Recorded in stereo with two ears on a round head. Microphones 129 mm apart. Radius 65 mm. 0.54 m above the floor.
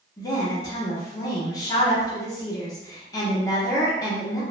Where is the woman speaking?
25° left (ahead or behind), 0.8 m.